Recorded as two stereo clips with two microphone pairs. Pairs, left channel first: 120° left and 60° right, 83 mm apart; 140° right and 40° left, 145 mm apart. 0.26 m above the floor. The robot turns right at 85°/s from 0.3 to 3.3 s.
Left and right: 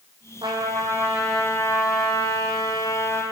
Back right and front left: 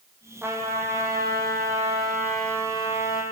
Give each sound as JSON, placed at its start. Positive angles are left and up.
{"t": 0.4, "sound": "a trumpet", "azimuth_deg": -40, "distance_m": 7.0}